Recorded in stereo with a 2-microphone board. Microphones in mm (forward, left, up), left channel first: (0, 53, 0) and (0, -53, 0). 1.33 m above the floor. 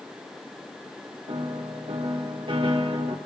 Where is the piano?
60° right (ahead or behind), 1.6 m.